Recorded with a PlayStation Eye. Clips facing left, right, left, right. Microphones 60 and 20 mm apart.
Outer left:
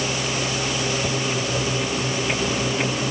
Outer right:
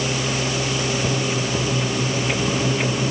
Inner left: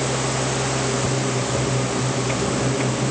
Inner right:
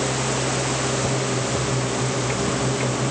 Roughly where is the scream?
No scream in this recording.